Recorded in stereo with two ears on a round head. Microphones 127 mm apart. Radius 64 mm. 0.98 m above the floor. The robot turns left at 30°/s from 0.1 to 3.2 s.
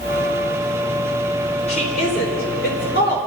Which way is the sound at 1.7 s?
50° left (ahead or behind).